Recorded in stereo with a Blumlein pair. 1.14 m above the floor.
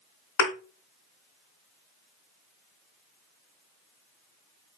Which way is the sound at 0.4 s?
45° left.